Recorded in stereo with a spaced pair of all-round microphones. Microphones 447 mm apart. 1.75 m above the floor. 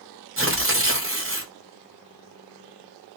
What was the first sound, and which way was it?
Tearing paper, 30° right (ahead or behind).